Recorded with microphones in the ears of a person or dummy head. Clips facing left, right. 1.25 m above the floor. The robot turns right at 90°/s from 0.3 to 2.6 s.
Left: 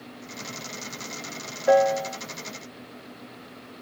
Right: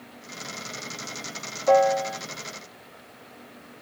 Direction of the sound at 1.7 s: 10° left (ahead or behind).